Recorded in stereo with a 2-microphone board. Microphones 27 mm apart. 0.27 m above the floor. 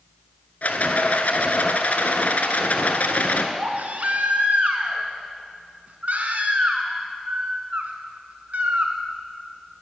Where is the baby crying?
70° right (ahead or behind), 1.3 m.